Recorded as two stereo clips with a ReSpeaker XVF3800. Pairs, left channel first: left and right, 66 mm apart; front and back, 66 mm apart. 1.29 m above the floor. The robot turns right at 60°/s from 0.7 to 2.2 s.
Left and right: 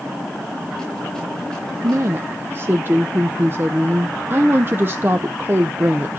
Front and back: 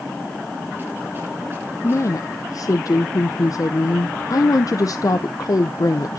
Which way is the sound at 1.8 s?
55° right.